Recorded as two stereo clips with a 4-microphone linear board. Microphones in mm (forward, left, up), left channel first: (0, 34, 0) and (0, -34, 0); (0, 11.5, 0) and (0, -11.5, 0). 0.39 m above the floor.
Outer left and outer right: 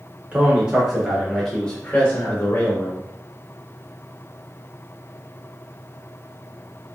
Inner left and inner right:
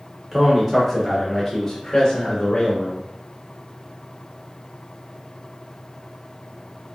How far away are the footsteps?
No footsteps in this recording.